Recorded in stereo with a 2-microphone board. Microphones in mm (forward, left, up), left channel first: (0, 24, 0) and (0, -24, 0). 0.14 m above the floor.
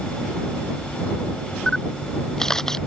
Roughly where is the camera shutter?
Centre.